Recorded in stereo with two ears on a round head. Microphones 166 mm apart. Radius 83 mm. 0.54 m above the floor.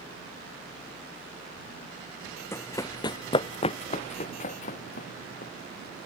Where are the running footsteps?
15° left (ahead or behind); by 5.5 s 50° left (ahead or behind).